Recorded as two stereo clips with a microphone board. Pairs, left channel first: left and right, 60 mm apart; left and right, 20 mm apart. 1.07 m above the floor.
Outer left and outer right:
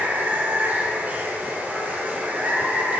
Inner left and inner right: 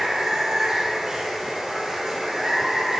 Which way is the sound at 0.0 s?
30° right (ahead or behind).